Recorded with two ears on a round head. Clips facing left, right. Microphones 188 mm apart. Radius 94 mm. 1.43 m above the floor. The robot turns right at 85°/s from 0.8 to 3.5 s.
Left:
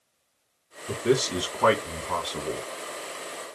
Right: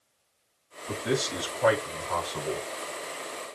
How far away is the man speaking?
About 2 m.